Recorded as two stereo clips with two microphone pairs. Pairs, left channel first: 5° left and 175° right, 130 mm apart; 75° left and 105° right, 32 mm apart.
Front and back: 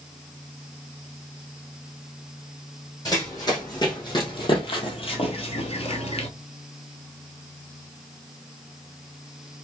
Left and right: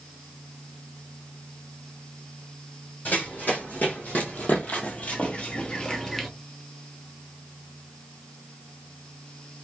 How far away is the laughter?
No laughter in this recording.